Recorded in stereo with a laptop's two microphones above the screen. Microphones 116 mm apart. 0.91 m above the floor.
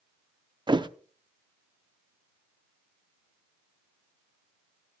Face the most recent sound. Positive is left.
turn(degrees=-40)  # may be behind; listen again after turning